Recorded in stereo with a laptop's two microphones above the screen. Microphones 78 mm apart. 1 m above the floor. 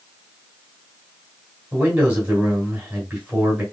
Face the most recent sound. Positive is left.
turn(degrees=-25)  # may be behind; listen again after turning